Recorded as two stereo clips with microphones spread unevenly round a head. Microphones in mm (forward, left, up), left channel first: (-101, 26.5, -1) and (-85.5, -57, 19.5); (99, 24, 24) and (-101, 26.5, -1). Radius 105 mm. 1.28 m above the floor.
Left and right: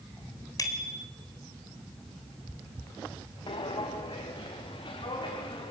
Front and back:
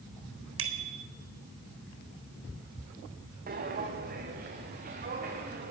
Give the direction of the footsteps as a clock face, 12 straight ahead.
8 o'clock.